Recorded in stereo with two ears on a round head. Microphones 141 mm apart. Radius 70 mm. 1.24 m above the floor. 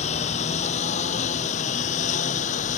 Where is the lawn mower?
45° left (ahead or behind); by 2.8 s 50° left (ahead or behind).